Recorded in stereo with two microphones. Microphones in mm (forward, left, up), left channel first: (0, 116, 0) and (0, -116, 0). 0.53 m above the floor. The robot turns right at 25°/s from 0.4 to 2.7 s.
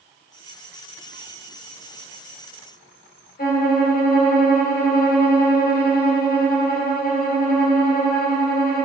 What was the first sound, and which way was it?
A violin, 40° left (ahead or behind).